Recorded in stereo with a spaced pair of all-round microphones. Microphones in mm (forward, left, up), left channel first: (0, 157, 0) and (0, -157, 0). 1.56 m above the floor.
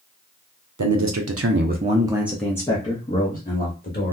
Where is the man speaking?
70° right (ahead or behind), 0.7 m; by 4.1 s 35° left (ahead or behind), 1.3 m.